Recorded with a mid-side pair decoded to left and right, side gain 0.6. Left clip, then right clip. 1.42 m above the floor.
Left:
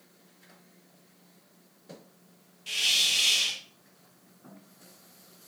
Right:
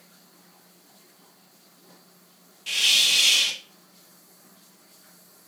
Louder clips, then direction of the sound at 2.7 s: Right 5 dB; 30° right.